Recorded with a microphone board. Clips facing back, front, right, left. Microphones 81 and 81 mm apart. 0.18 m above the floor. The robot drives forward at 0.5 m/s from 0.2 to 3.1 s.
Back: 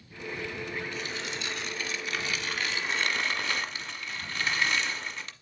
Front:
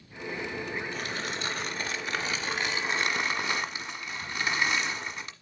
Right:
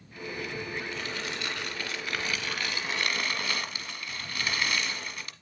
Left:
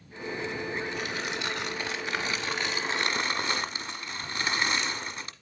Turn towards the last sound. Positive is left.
turn(degrees=70)